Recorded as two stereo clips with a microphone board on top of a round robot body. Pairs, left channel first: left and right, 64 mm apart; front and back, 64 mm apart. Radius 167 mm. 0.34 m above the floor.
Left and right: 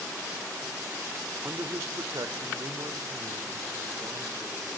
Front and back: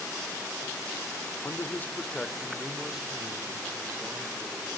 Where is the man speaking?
40° right, 1.5 m; by 4.7 s 115° right, 3.5 m.